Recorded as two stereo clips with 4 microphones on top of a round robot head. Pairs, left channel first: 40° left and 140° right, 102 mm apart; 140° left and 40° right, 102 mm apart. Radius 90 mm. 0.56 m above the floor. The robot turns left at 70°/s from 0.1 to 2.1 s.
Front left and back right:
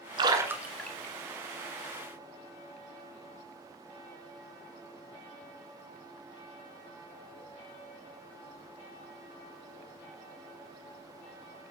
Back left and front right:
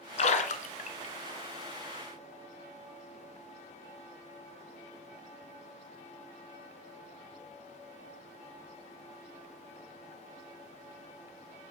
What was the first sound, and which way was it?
A splash, 170° left.